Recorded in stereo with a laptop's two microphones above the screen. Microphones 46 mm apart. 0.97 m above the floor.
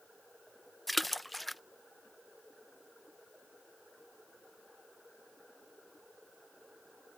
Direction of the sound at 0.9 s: Centre (ahead or behind).